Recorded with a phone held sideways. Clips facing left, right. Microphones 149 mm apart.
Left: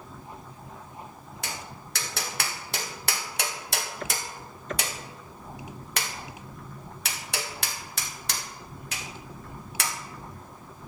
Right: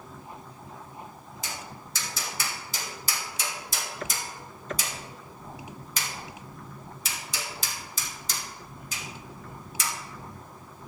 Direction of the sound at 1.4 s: 80° left.